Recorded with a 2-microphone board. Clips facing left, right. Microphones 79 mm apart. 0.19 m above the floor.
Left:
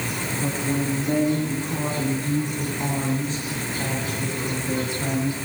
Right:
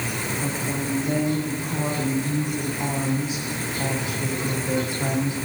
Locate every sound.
0.4 s a woman speaking: 5° left (ahead or behind), 9.5 m; by 5.3 s 20° right (ahead or behind), 8.5 m